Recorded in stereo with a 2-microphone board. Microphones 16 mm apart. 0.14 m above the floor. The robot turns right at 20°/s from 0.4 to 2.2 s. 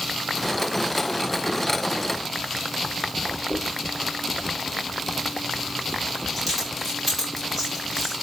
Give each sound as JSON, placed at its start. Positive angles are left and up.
{"t": 3.5, "sound": "a dropped coin", "side_deg": -5, "distance_m": 9.5}